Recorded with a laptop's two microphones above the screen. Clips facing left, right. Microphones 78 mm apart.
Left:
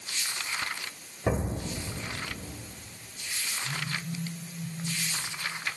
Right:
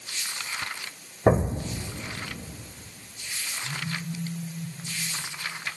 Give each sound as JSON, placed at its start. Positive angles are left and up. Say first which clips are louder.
{"t": 1.3, "sound": "an explosion", "louder": "right 8 dB", "side_deg": -40, "distance_m": 2.0}
{"t": 3.6, "sound": "a phone buzzing", "louder": "right 2 dB", "side_deg": -5, "distance_m": 9.0}